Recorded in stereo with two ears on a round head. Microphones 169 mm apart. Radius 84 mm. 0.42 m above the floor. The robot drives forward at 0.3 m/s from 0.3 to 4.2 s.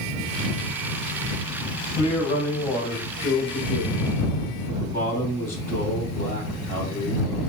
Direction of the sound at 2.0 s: 20° left (ahead or behind).